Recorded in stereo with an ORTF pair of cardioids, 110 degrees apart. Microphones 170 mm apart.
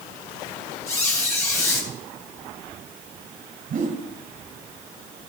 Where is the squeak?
15° left, 4 m.